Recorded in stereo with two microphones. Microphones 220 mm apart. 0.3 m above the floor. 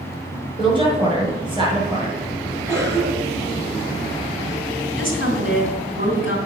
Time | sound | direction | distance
0.6 | a woman speaking | 20° right (ahead or behind) | 5 m
2.7 | a cough | 15° right (ahead or behind) | 3 m
5.0 | a woman speaking | 40° right (ahead or behind) | 3 m